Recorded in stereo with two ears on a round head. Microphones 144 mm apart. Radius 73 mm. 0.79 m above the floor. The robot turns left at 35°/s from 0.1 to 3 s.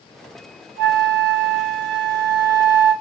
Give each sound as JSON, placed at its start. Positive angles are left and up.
{"t": 0.8, "sound": "a flute", "azimuth_deg": -80, "distance_m": 1.4}